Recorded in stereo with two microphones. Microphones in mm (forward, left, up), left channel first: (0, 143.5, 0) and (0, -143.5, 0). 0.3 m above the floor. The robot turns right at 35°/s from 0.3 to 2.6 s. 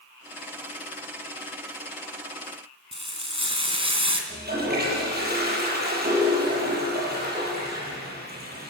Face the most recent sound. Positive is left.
turn(degrees=-30)  # may be behind; listen again after turning